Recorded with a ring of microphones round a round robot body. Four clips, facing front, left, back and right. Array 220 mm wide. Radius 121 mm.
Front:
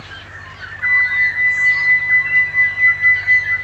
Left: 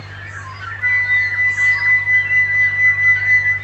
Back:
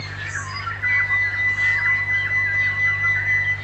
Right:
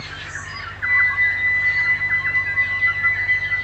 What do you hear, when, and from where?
0.8 s a flute: 90° left, 3 m